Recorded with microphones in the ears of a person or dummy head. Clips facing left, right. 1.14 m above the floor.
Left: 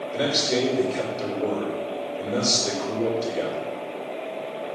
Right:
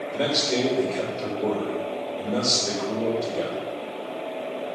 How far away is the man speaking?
About 4 m.